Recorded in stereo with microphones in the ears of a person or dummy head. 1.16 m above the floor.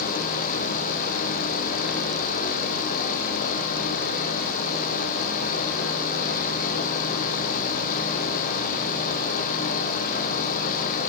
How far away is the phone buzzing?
I don't hear a phone buzzing.